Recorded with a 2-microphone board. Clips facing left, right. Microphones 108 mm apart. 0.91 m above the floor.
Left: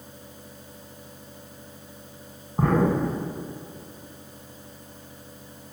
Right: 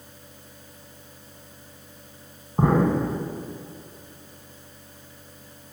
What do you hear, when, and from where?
2.6 s an explosion: 15° right (ahead or behind), 3 m